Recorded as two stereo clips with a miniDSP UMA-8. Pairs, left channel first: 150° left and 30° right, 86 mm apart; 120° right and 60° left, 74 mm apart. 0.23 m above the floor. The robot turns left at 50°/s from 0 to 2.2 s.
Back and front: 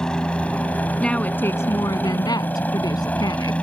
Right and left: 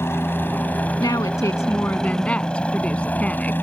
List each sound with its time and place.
0.0 s a helicopter: 135° right; by 3.6 s 150° right
1.0 s a woman speaking: 130° right; by 3.5 s 170° left